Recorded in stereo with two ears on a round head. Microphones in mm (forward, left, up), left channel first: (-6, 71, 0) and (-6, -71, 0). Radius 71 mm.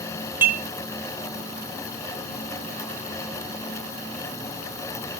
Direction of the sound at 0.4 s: 15° right (ahead or behind).